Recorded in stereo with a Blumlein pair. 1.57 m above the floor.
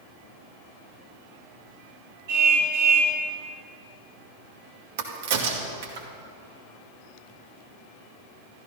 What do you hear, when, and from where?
2.3 s a car horn: 60° right, 6.5 m
5.0 s a crack: 55° right, 2 m